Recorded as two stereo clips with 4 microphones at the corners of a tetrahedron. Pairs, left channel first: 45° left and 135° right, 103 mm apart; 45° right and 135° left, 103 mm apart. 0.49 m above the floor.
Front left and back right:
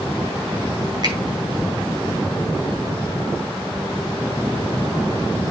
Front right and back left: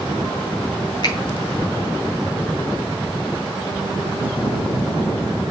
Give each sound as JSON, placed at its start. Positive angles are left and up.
{"t": 1.0, "sound": "a finger snap", "azimuth_deg": -90, "distance_m": 4.5}